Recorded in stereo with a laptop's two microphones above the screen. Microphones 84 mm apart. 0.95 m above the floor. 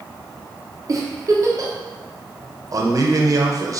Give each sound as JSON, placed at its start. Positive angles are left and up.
{"t": 0.9, "sound": "a giggle", "side_deg": -40, "distance_m": 0.5}
{"t": 2.7, "sound": "a man speaking", "side_deg": -40, "distance_m": 0.6}